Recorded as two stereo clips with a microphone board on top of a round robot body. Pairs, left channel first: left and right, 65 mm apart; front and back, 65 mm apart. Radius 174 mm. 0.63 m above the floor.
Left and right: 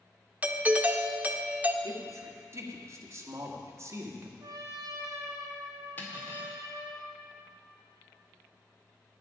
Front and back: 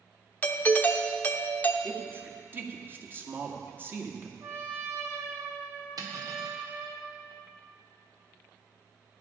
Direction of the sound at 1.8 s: 130° right.